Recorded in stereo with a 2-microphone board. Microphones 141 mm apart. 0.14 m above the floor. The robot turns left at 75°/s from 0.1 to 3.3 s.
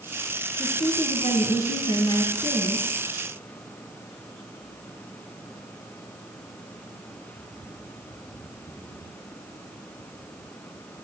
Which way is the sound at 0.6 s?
165° left.